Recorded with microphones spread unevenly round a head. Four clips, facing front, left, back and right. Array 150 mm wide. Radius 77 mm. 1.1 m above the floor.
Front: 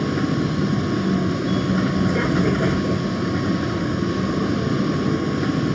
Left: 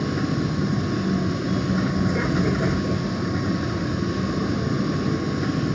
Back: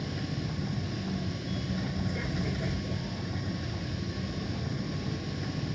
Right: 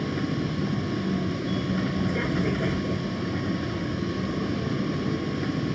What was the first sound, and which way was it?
A vehicle, 10° left.